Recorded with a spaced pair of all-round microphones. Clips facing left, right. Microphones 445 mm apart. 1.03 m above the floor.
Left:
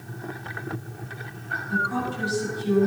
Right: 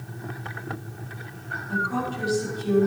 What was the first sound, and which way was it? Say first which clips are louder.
A woman speaking: even; 15° left (ahead or behind).